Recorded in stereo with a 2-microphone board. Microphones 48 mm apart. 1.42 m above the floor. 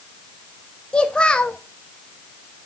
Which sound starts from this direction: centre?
A child speaking, at 0.9 s.